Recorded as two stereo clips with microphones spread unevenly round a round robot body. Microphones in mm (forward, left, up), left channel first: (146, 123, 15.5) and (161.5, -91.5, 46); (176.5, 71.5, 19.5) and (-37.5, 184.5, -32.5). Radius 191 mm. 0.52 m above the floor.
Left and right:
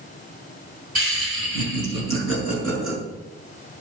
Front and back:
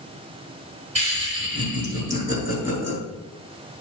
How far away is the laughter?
About 5 m.